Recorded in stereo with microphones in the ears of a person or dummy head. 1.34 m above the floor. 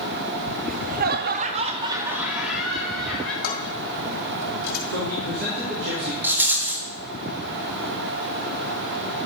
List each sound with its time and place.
0.6 s laughter: 35° right (ahead or behind), 0.7 m; by 3.3 s 5° left (ahead or behind), 1.3 m
3.4 s dishes clattering: 70° left (ahead or behind), 2.5 m
4.9 s a man speaking: 80° right, 3.5 m
6.2 s a rattle: 10° right (ahead or behind), 1.5 m